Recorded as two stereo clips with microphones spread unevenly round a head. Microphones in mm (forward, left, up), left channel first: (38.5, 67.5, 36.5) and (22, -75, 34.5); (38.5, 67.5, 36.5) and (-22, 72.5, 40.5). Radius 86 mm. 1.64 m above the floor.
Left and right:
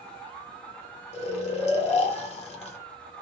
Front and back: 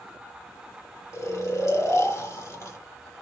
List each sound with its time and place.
1.1 s snoring: 35° left, 0.8 m